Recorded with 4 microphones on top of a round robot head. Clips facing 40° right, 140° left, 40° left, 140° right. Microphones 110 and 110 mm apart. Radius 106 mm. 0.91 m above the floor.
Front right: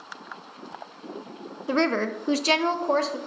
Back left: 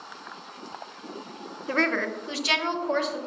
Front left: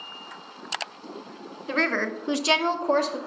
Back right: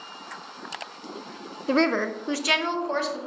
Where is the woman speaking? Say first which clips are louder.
Front right 3 dB, back right 4 dB; 110° right, 0.7 m; by 3.2 s 10° left, 1.2 m.